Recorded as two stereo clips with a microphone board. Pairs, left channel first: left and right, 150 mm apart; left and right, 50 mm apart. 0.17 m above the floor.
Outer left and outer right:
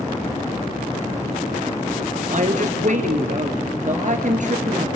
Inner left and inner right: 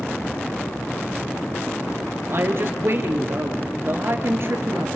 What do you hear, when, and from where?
2.3 s a woman speaking: 60° right (ahead or behind), 3 m